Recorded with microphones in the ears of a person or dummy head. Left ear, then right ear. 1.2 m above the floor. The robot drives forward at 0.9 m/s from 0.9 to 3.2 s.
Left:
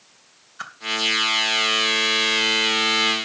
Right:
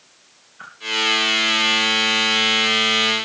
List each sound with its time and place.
0.6 s a whoosh: 80° left, 2.5 m